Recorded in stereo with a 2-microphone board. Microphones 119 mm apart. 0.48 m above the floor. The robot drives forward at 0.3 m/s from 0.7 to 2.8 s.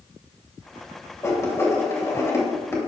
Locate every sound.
1.2 s writing: 25° left (ahead or behind), 2.5 m; by 2.8 s 20° left (ahead or behind), 3 m